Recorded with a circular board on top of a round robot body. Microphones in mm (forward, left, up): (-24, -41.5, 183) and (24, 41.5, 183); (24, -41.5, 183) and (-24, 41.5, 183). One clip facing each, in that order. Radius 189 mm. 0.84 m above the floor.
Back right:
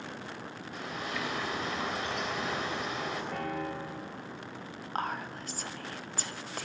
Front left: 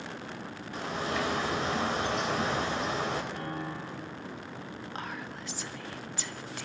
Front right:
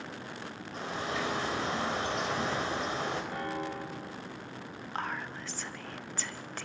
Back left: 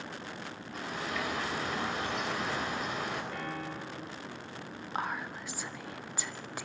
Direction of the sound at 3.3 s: 130° right.